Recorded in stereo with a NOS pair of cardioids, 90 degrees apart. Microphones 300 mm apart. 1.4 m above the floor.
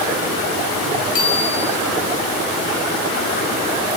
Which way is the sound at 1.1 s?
60° left.